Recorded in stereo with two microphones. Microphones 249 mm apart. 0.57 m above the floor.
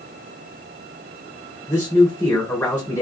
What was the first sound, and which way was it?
A man speaking, 10° left (ahead or behind).